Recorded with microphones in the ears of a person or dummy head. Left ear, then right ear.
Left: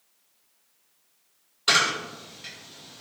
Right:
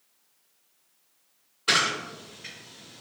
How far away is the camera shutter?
About 1.5 m.